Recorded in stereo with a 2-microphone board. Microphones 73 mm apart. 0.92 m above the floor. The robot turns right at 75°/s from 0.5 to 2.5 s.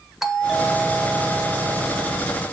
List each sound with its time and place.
0.2 s a doorbell: 175° right, 1.5 m; by 2.2 s 45° right, 1.5 m